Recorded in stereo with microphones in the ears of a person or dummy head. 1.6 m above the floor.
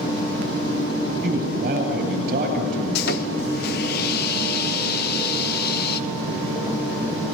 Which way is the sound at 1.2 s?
50° right (ahead or behind).